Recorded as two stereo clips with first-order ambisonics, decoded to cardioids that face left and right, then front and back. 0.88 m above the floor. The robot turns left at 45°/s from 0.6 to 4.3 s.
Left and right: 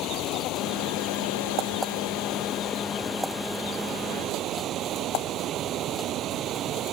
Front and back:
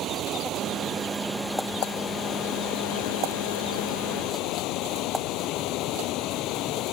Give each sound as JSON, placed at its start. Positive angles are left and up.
{"t": 0.0, "sound": "running water", "azimuth_deg": 130}